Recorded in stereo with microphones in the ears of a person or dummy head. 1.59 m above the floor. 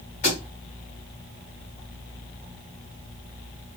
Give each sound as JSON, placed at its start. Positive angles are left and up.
{"t": 0.2, "sound": "a thud", "side_deg": 30, "distance_m": 1.4}